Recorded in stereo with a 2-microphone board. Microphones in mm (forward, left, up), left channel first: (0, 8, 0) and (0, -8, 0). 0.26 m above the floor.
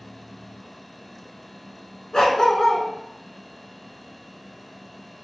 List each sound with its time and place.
2.1 s a dog barking: 50° left (ahead or behind), 0.7 m